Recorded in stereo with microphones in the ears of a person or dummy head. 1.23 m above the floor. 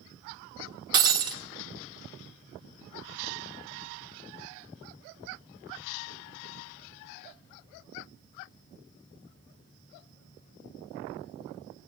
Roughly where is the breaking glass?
Right.